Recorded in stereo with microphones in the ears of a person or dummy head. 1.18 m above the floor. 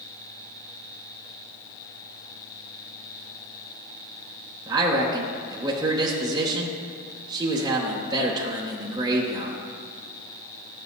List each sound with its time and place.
4.7 s a man speaking: 15° right (ahead or behind), 0.8 m